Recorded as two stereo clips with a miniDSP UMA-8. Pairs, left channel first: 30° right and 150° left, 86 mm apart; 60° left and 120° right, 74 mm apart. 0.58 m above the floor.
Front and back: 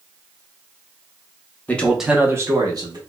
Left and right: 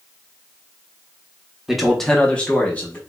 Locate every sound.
1.7 s a man speaking: 40° right, 0.6 m; by 3.0 s 125° left, 1.0 m